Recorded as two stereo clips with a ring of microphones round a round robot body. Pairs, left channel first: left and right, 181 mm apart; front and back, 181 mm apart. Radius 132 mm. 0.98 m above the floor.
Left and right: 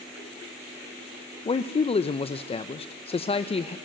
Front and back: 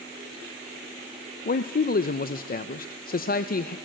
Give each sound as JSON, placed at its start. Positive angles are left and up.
{"t": 1.4, "sound": "a man speaking", "azimuth_deg": 30, "distance_m": 0.6}